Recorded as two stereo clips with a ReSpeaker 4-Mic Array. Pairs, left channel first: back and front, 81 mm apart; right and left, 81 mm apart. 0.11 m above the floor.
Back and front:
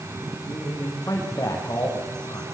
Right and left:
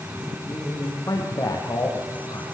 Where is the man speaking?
135° right, 6 m.